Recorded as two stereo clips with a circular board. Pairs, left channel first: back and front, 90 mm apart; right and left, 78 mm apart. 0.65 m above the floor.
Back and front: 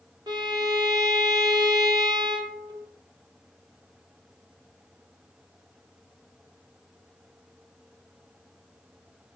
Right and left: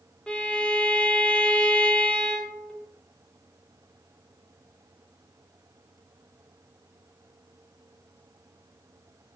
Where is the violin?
15° right, 1.0 m.